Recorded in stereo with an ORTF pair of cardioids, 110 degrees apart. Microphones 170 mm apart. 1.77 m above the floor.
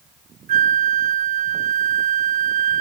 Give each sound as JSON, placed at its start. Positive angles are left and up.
{"t": 0.5, "sound": "a flute", "azimuth_deg": -50, "distance_m": 0.6}